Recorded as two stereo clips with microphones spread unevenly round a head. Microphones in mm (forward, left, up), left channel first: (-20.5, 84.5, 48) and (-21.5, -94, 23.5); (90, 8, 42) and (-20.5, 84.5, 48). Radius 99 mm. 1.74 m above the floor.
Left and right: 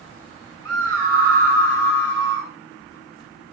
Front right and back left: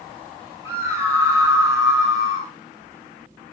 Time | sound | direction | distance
0.7 | a scream | 75° left | 6 m